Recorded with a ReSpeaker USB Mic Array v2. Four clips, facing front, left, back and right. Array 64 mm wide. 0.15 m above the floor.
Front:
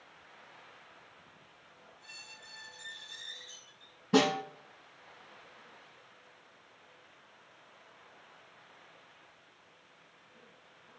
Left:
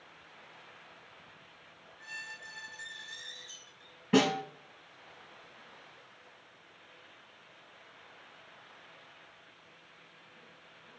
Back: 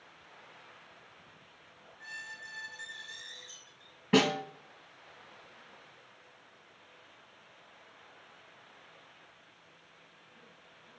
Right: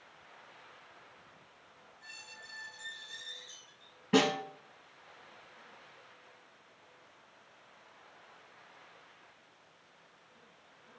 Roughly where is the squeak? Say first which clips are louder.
Left 8 dB, back 12 dB; behind left.